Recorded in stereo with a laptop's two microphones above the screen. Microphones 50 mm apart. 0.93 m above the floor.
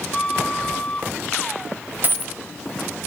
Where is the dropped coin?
40° right (ahead or behind), 1.2 m.